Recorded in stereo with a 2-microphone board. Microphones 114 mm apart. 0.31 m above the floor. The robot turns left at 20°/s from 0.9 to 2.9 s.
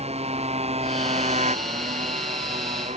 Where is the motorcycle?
65° right; by 3.0 s 105° right.